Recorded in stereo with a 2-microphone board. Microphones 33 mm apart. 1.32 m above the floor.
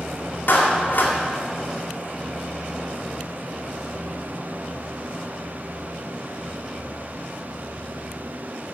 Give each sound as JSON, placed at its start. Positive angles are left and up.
{"t": 0.5, "sound": "a clap", "side_deg": 75, "distance_m": 2.0}